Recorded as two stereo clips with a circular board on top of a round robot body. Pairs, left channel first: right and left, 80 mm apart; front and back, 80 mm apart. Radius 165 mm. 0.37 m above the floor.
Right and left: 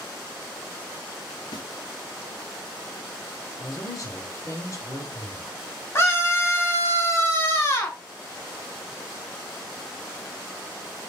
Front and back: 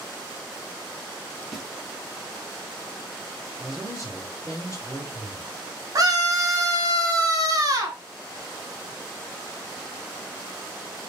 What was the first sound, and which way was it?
A snare drum, 95° right.